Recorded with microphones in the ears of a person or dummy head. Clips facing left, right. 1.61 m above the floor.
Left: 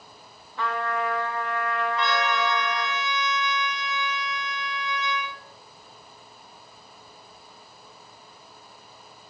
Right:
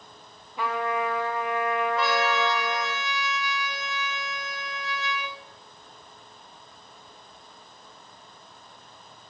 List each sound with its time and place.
0.6 s a trumpet: 15° right (ahead or behind), 1.3 m
2.0 s a trumpet: 45° right (ahead or behind), 7.5 m